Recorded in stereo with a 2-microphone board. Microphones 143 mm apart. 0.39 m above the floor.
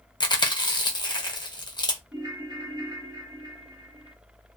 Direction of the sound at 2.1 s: 25° right (ahead or behind).